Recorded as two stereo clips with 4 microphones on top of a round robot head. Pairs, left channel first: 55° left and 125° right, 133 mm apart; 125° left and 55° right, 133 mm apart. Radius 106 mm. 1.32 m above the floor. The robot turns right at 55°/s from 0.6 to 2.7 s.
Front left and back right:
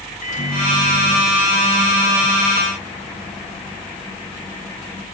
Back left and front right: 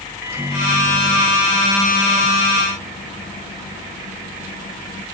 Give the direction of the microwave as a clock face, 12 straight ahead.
11 o'clock.